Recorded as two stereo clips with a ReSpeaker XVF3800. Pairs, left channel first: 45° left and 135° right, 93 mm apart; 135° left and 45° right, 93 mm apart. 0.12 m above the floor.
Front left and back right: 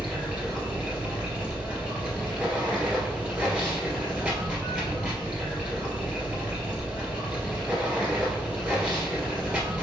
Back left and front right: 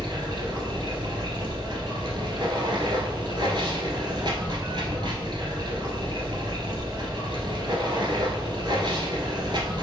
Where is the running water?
60° right, 1.6 m.